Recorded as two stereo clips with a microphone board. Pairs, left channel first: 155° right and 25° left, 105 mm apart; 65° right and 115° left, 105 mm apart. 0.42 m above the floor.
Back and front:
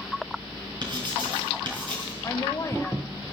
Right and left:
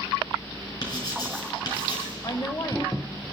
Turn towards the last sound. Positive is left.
turn(degrees=-105)